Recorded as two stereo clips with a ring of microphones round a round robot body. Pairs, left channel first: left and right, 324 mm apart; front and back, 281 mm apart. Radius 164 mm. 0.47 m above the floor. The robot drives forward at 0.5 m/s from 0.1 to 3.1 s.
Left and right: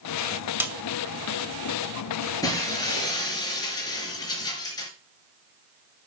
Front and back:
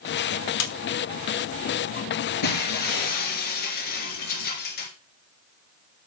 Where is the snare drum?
5° right, 1.9 m.